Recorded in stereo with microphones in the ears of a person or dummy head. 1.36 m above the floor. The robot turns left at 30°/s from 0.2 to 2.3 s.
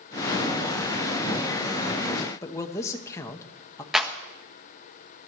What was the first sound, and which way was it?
A man speaking, 20° left (ahead or behind).